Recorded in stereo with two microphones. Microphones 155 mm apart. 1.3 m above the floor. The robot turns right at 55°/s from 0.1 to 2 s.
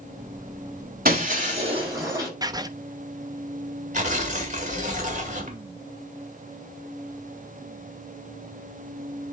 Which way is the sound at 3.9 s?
55° right (ahead or behind).